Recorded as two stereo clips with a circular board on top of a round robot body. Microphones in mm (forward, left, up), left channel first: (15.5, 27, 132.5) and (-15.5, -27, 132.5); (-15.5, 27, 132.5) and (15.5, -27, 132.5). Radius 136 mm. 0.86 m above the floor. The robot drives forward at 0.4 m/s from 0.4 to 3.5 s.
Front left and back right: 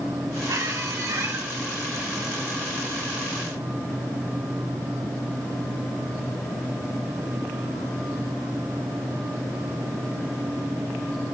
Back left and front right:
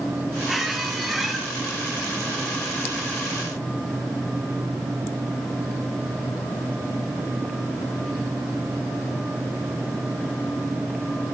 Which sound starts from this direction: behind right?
A squeak, at 0.5 s.